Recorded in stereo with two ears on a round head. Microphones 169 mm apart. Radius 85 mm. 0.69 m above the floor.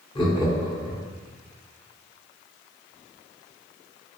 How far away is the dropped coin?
No dropped coin in this recording.